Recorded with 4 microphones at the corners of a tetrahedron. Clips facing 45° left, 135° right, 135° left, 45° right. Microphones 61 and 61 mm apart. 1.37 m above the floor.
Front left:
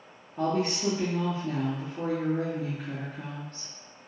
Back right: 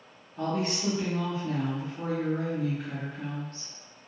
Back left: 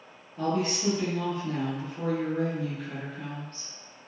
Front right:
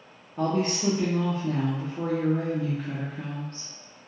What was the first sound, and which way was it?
A woman speaking, 10° right.